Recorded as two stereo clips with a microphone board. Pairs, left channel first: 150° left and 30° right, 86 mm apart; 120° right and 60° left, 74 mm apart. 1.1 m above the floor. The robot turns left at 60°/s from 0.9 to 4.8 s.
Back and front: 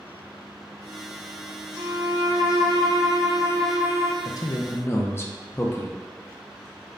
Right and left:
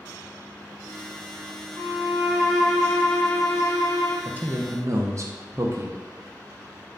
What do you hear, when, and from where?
1.8 s a violin: 25° left, 0.6 m; by 4.2 s 115° right, 0.6 m
4.2 s a man speaking: 130° left, 0.5 m; by 6.0 s 95° left, 0.5 m